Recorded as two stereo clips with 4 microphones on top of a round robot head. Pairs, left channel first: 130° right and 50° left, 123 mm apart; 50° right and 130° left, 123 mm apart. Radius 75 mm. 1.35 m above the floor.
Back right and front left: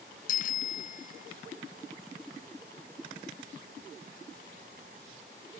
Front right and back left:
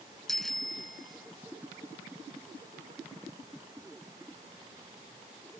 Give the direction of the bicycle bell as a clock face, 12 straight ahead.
5 o'clock.